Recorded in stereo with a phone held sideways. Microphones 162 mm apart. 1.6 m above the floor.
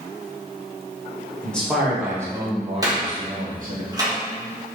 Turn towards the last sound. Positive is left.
turn(degrees=-20)  # may be behind; listen again after turning